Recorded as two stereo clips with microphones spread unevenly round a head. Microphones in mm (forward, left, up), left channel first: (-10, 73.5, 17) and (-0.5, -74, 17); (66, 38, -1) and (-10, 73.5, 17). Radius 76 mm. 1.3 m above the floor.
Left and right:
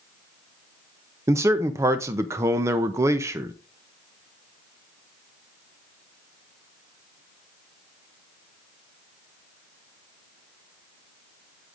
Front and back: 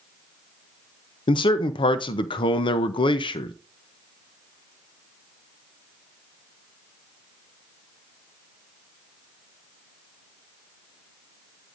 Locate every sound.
1.3 s a man speaking: 15° right, 0.6 m